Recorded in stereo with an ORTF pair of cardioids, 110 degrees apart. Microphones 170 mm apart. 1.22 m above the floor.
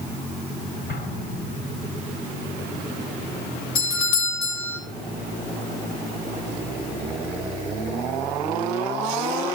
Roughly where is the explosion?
Ahead left.